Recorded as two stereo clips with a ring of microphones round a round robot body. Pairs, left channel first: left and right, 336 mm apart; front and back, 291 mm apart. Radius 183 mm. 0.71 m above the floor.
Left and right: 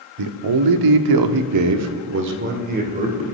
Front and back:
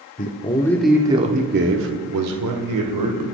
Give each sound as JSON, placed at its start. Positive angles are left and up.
{"t": 0.2, "sound": "a man speaking", "azimuth_deg": -65, "distance_m": 1.8}